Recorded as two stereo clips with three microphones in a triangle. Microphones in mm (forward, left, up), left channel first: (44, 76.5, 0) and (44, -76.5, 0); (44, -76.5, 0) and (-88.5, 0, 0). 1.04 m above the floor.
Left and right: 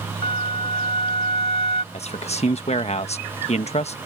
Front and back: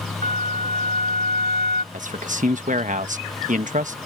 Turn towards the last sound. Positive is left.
turn(degrees=125)